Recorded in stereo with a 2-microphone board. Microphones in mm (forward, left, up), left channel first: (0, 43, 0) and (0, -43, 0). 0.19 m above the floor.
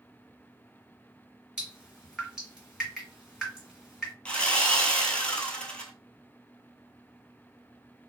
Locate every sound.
1.6 s dripping: 5° right (ahead or behind), 2 m
4.2 s sawing: 15° left (ahead or behind), 0.7 m